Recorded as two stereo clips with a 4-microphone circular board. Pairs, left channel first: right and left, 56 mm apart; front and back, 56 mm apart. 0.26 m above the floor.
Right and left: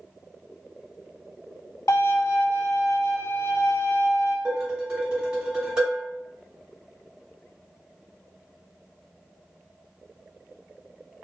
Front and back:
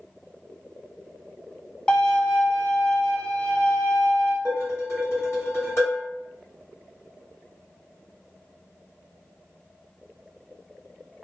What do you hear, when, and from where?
1.9 s a violin: 70° right, 0.5 m
4.5 s dishes clattering: 15° left, 1.3 m